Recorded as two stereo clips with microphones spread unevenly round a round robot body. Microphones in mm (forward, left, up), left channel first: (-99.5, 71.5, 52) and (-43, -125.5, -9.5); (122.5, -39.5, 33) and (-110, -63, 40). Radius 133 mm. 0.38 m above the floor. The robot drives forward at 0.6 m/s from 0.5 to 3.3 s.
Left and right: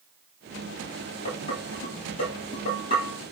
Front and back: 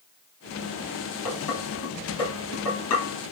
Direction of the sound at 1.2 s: 40° left.